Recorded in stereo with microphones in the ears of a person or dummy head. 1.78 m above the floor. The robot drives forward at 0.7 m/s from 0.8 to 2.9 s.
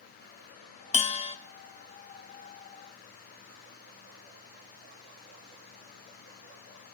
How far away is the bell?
About 0.6 m.